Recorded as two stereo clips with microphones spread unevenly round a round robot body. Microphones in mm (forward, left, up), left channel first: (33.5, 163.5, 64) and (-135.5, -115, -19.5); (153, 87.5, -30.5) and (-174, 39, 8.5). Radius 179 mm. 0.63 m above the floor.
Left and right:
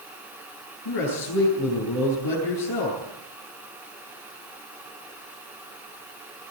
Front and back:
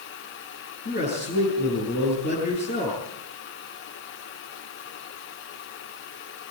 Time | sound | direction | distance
0.8 | a man speaking | 70° left | 9 m